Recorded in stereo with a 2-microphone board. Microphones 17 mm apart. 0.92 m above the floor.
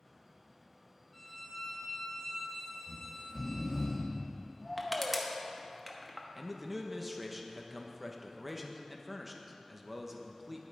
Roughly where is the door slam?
I don't hear a door slam.